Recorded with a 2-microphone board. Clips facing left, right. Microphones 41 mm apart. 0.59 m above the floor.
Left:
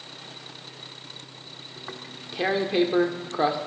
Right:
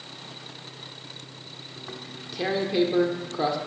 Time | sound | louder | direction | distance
1.8 | tearing paper | even | 25° left (ahead or behind) | 1.4 m